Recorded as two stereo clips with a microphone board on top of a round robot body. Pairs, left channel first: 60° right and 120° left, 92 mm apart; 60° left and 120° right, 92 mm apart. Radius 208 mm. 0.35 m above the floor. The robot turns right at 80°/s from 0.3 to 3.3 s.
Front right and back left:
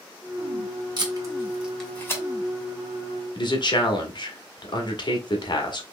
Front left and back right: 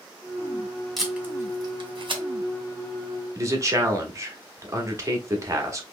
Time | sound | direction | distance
1.0 | tape being pulled | 150° left | 1.9 m
3.4 | a man speaking | 75° right | 1.4 m